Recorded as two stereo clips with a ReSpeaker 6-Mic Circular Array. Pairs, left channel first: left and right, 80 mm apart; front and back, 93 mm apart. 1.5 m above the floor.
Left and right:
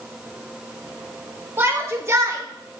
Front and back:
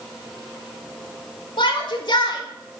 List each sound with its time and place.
1.6 s a shout: 30° right, 4 m; by 2.8 s 45° right, 3 m